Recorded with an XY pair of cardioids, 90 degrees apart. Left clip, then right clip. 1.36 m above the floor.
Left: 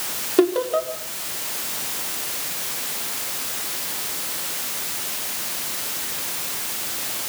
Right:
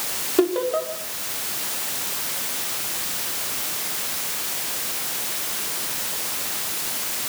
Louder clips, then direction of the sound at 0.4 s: Left 2 dB; 25° left.